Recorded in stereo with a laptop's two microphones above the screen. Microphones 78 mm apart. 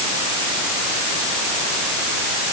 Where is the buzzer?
I don't hear a buzzer.